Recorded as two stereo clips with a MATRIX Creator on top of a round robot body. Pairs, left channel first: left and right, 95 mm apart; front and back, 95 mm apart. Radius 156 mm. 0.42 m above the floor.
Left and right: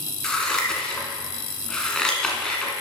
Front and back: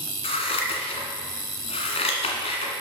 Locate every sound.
0.2 s scissors: 5° left, 1.5 m